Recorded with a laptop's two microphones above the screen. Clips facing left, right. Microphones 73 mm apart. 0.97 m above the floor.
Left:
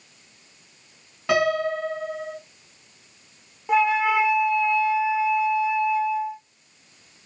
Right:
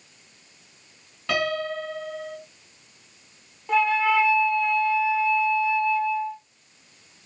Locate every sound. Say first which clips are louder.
1.3 s a piano: left 5 dB; 20° left (ahead or behind), 2.5 m
3.7 s a flute: left 1 dB; 15° left (ahead or behind), 0.7 m